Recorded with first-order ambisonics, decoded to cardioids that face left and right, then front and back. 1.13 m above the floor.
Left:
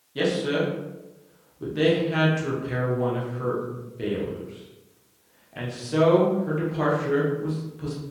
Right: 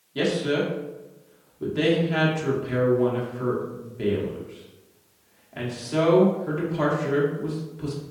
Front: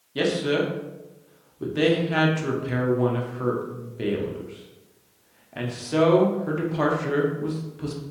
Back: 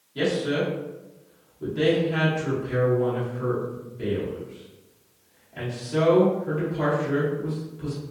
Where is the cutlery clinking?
I don't hear cutlery clinking.